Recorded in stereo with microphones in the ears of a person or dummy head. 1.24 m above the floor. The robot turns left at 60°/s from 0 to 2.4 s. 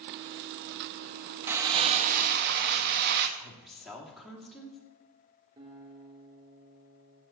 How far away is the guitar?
About 3 m.